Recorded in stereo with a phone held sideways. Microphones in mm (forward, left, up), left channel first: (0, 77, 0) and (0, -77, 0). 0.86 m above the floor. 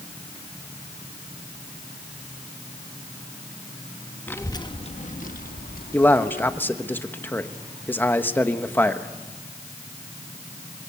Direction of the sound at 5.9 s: 15° left (ahead or behind).